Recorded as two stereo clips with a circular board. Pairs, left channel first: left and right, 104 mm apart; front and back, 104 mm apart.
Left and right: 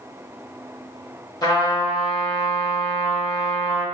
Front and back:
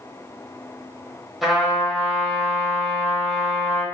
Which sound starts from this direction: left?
A trumpet, at 1.4 s.